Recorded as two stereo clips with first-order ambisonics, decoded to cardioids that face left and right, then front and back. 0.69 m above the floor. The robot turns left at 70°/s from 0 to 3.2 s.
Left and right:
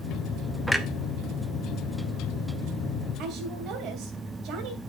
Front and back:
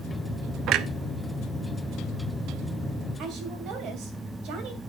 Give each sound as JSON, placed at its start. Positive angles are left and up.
{"t": 0.7, "sound": "a clunk", "azimuth_deg": -175, "distance_m": 0.7}
{"t": 3.2, "sound": "a woman speaking", "azimuth_deg": -135, "distance_m": 3.0}